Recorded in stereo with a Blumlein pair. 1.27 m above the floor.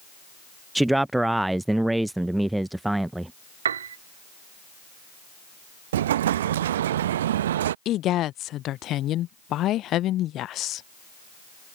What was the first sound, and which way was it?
A man speaking, 5° right.